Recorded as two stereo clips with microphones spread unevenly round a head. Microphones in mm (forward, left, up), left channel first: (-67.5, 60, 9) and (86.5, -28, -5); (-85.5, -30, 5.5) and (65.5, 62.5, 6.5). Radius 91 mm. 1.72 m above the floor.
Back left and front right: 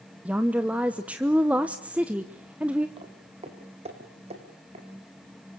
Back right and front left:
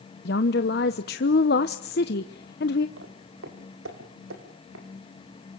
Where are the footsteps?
30° left, 4 m; by 4.8 s 25° left, 5.5 m.